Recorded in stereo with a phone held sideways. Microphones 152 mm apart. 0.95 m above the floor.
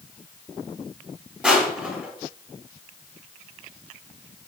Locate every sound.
1.4 s crushing: 10° right (ahead or behind), 2.0 m